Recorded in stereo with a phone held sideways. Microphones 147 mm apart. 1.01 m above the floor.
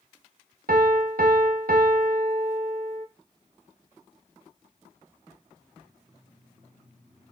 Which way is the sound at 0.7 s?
80° right.